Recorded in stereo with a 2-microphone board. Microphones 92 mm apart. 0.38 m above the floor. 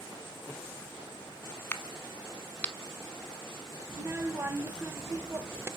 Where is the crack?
15° left (ahead or behind), 0.8 m.